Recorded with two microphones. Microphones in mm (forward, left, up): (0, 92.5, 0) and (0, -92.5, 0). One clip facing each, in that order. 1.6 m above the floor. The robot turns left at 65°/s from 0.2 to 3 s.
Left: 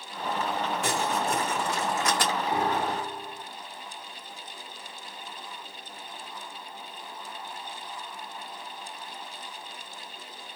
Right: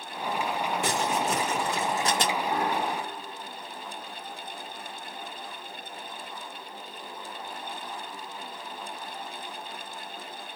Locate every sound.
0.8 s crumpling: 70° right (ahead or behind), 2.5 m; by 2.3 s 15° right (ahead or behind), 2.5 m
2.5 s a piano: 165° left, 1.5 m; by 3.5 s 135° left, 1.5 m